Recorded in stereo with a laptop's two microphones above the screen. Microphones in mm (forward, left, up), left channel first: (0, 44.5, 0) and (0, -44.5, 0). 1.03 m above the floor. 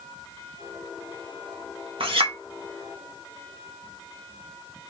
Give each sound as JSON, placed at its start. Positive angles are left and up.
{"t": 2.0, "sound": "a clink", "side_deg": -85, "distance_m": 1.1}